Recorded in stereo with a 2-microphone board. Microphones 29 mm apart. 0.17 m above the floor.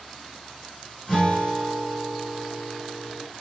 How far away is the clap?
I don't hear a clap.